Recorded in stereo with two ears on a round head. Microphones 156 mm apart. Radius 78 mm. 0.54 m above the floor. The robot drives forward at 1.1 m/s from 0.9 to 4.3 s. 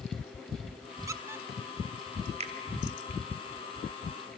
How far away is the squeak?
About 0.6 m.